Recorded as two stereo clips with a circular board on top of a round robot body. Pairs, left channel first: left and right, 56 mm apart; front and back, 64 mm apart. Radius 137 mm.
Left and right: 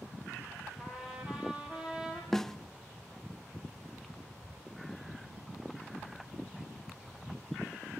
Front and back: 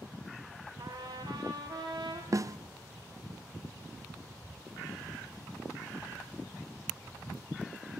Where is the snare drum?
170° left, 0.7 m.